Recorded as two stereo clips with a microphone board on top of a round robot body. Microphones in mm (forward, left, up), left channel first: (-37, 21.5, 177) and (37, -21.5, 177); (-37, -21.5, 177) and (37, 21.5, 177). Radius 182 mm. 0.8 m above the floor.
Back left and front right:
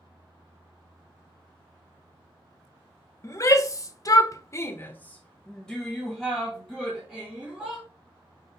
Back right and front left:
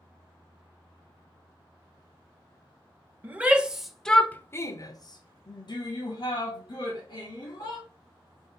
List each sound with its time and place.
3.2 s a shout: 100° left, 1.1 m; by 7.8 s 115° right, 2.5 m